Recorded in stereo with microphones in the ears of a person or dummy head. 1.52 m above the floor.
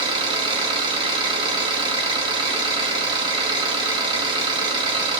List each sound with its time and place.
0.0 s an engine running: 25° right (ahead or behind), 1.8 m